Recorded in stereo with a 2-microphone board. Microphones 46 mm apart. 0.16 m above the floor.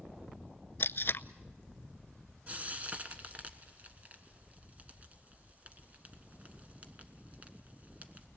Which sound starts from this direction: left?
Tape being pulled, at 0.8 s.